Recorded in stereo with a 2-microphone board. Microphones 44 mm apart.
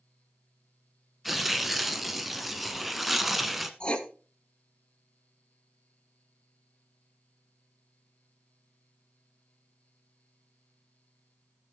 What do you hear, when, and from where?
1.2 s tearing paper: centre (ahead or behind), 0.9 m
3.8 s writing: 25° left (ahead or behind), 1.1 m